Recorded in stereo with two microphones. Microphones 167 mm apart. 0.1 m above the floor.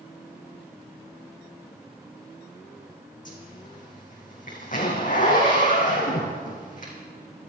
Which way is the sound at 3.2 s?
50° left (ahead or behind).